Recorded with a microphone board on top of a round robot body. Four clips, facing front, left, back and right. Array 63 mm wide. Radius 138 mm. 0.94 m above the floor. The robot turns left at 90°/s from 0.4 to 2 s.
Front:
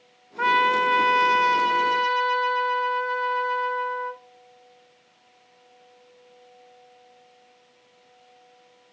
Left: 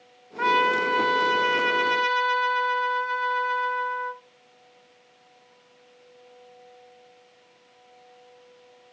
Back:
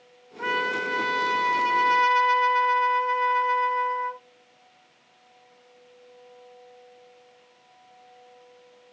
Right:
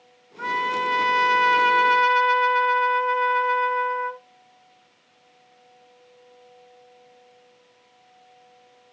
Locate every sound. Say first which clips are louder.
0.4 s a trumpet: left 3 dB, front 7 dB; 30° left, 1.8 m; by 4.2 s 115° right, 1.8 m